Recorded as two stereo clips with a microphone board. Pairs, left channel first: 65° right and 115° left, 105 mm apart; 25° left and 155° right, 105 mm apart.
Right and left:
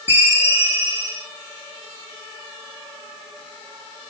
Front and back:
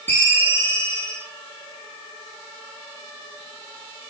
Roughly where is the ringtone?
Ahead right.